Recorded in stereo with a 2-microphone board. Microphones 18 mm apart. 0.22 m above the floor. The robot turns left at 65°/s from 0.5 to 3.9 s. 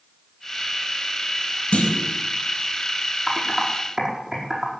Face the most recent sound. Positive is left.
turn(degrees=-35)  # may be behind; listen again after turning